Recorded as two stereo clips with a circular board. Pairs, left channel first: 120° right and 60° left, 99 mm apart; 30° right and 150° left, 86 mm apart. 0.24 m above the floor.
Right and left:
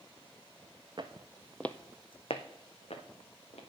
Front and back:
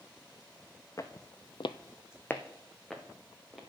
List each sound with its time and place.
1.0 s footsteps: 20° left, 0.9 m; by 3.6 s 120° right, 2.5 m